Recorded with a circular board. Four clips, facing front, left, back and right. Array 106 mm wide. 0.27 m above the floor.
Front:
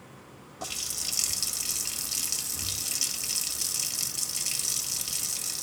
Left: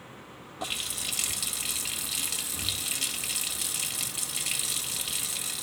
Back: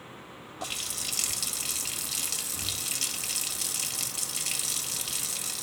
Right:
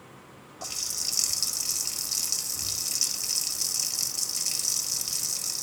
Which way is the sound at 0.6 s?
110° left.